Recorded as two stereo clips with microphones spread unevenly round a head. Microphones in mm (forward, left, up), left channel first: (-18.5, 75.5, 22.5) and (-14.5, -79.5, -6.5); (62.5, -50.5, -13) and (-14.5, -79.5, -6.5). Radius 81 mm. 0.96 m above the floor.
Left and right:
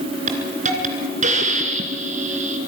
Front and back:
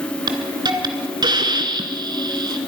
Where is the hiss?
135° right, 2.5 m.